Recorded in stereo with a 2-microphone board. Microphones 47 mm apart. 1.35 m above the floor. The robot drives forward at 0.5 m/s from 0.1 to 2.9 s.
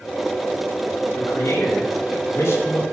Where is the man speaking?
75° left (ahead or behind), 3 m; by 2.8 s 60° left (ahead or behind), 3.5 m.